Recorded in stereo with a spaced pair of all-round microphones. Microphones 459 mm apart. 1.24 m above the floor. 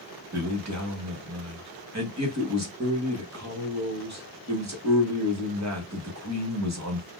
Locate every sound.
0.3 s a man speaking: 35° right (ahead or behind), 1.2 m